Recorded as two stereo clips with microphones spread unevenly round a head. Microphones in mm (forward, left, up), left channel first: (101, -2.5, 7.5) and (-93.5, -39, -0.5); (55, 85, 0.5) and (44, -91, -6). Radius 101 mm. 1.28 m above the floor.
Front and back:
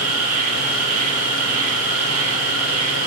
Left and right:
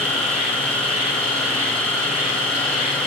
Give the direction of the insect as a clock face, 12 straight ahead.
6 o'clock.